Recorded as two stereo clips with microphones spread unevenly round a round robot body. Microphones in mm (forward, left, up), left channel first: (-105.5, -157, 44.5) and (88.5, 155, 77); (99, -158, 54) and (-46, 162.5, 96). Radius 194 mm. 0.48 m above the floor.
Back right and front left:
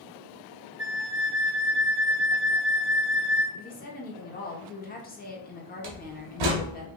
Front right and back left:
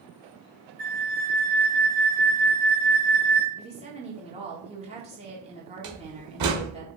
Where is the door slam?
75° left, 1.3 m.